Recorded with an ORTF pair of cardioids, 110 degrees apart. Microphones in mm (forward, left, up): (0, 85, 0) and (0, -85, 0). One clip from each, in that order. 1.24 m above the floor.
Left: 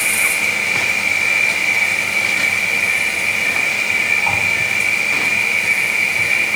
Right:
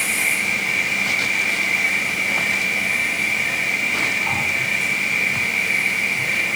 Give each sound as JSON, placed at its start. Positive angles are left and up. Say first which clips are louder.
{"t": 0.0, "sound": "an insect", "louder": "left 4 dB", "azimuth_deg": 65, "distance_m": 3.5}